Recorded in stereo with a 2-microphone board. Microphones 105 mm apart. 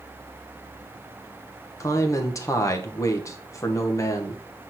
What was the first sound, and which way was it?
A man speaking, 30° left (ahead or behind).